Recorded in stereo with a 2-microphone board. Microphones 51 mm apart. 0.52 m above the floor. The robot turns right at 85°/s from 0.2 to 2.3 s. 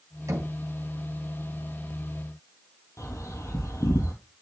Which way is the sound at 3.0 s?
75° left (ahead or behind).